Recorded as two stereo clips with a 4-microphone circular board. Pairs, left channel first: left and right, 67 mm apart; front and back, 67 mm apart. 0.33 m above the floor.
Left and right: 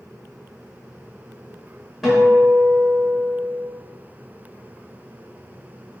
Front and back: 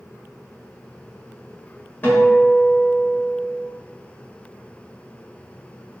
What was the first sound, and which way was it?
A guitar, 5° right.